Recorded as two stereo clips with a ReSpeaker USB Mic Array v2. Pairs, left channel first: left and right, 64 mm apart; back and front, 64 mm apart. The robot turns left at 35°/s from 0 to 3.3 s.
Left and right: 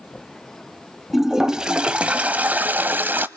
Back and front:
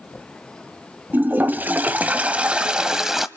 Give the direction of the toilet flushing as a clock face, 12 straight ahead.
12 o'clock.